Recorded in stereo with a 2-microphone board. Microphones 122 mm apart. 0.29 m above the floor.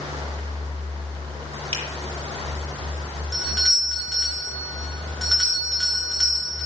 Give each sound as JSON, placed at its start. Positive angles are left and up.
{"t": 1.7, "sound": "a finger snap", "side_deg": -50, "distance_m": 7.0}
{"t": 3.3, "sound": "a doorbell", "side_deg": 0, "distance_m": 5.0}